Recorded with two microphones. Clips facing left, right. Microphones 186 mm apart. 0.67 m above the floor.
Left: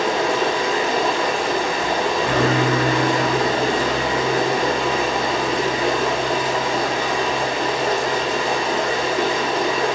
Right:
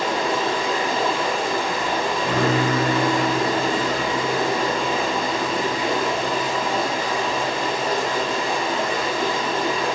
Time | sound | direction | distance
0.0 | running water | 70° left (ahead or behind) | 1.0 m